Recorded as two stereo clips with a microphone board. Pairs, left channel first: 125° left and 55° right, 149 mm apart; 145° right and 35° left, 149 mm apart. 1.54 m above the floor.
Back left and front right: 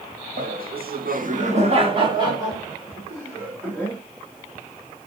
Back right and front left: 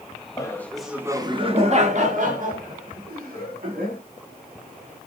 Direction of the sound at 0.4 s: 80° right.